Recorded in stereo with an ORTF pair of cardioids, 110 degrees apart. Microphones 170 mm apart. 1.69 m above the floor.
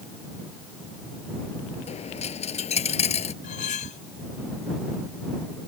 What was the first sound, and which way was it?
A dropped coin, 40° left.